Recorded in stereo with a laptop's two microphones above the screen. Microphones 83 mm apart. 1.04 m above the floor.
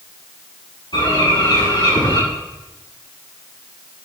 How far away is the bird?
About 6 m.